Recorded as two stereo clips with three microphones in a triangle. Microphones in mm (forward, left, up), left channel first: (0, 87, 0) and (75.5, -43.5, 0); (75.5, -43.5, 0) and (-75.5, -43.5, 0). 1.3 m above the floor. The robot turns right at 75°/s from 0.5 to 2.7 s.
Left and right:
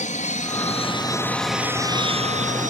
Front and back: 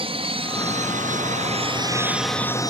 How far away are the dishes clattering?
I don't hear dishes clattering.